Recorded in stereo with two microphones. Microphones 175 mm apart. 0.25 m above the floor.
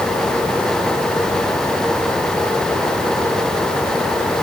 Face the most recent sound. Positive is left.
No sound to turn to.